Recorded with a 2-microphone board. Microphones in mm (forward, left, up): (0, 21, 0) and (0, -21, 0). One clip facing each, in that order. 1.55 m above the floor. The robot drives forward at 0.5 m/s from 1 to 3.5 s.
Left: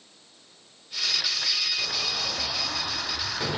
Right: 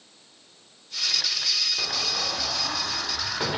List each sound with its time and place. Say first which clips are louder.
1.8 s an explosion: right 1 dB; 30° right (ahead or behind), 1.3 m; by 3.6 s 20° right (ahead or behind), 1.7 m